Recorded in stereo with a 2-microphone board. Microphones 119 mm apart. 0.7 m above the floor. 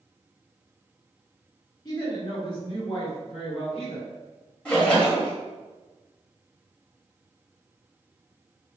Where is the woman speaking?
30° left (ahead or behind), 1.1 m; by 4.1 s 55° left (ahead or behind), 3 m.